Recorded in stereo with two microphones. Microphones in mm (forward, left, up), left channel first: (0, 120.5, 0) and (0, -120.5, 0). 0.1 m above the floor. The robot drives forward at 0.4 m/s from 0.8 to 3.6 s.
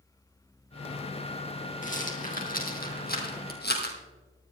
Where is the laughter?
I don't hear laughter.